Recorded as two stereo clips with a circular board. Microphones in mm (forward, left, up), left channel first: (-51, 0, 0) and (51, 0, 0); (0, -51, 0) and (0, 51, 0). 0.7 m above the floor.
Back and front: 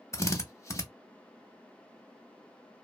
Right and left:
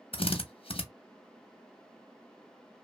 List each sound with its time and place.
0.1 s a drill: 120° right, 0.5 m